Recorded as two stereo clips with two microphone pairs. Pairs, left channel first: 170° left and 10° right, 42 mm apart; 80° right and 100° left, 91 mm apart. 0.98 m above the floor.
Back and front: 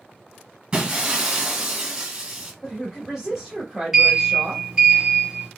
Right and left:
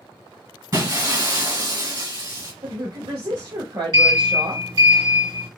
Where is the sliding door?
65° left, 2 m.